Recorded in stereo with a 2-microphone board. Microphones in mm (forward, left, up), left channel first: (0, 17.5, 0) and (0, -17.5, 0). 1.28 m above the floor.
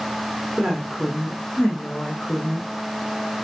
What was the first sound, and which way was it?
A woman speaking, 25° right (ahead or behind).